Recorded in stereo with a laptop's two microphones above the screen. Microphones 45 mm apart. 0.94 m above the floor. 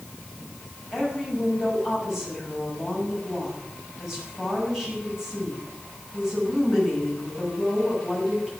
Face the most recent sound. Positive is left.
turn(degrees=-10)  # may be behind; listen again after turning